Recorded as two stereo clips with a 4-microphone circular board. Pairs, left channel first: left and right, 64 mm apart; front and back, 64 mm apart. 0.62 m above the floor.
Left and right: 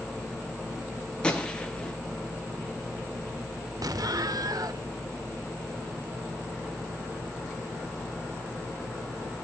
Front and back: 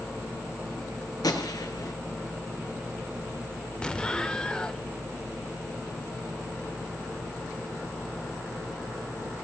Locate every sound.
1.2 s a gunshot: 15° left, 3 m
3.8 s an explosion: 75° right, 0.8 m